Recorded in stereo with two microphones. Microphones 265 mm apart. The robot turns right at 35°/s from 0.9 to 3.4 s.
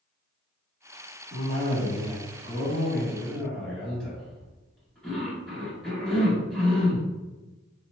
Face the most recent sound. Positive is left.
turn(degrees=5)